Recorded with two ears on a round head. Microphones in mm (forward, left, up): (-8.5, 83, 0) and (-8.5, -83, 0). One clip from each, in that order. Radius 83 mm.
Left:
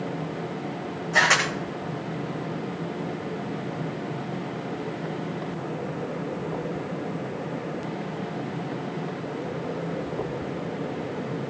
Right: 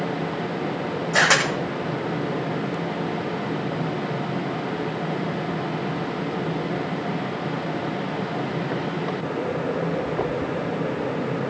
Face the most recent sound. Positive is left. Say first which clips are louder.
# right 1 dB
turn(degrees=-15)  # may be behind; listen again after turning